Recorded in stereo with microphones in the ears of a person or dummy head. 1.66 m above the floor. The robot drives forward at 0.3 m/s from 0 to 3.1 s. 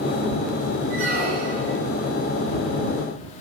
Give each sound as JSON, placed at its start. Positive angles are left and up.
{"t": 0.9, "sound": "a squeak", "side_deg": -45, "distance_m": 1.1}